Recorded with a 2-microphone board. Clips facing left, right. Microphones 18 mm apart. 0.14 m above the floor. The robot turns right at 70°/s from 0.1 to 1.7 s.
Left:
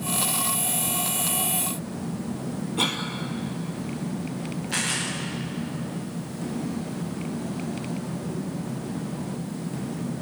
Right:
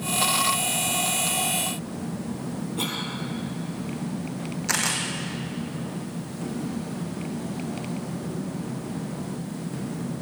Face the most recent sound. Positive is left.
turn(degrees=-75)  # may be behind; listen again after turning